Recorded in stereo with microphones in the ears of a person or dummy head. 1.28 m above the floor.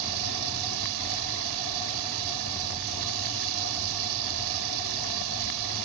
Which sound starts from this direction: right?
Running water, at 0.0 s.